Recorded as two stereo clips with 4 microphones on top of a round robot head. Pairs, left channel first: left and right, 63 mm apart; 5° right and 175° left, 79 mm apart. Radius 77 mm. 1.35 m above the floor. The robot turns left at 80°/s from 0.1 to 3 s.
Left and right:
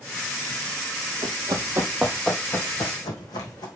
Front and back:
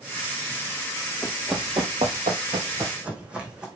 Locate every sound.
1.2 s running footsteps: 70° right, 2 m; by 3.7 s 95° left, 4.5 m